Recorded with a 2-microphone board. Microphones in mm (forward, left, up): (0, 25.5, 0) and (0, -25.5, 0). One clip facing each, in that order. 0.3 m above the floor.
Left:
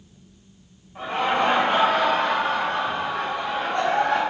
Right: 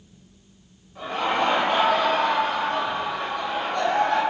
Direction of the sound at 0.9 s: 40° left (ahead or behind).